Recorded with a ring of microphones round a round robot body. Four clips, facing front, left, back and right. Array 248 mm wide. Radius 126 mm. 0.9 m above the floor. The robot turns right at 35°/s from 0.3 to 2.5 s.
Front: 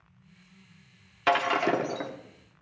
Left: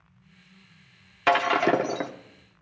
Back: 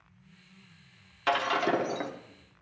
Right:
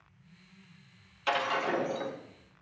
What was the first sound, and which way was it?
Breaking glass, 65° left.